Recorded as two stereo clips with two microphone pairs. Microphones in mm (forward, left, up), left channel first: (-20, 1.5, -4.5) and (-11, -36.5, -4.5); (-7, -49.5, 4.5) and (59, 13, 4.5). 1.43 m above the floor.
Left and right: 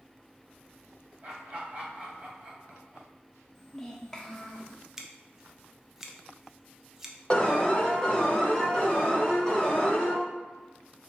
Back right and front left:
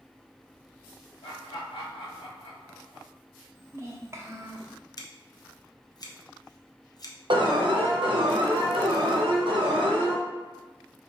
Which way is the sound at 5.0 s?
155° right.